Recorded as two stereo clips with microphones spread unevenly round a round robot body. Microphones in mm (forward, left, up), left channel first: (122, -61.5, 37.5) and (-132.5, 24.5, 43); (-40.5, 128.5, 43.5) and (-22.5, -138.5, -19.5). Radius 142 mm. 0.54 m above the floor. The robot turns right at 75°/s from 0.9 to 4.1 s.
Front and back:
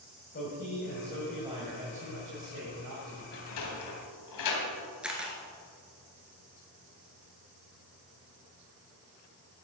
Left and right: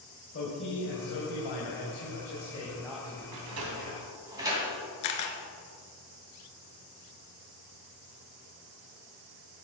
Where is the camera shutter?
75° left, 1.5 m.